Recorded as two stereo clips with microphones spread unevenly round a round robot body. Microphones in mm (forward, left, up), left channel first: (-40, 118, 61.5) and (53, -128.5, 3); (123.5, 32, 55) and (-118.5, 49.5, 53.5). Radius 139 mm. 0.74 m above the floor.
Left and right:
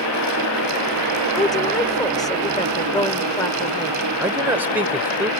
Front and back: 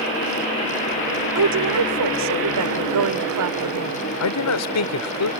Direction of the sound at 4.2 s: 10° left.